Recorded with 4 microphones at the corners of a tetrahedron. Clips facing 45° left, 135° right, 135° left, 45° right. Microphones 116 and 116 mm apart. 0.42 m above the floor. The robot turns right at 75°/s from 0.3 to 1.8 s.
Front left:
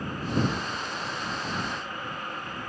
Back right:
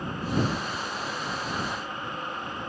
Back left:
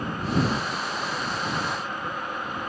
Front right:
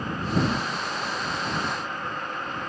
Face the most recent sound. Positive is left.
No sound to turn to.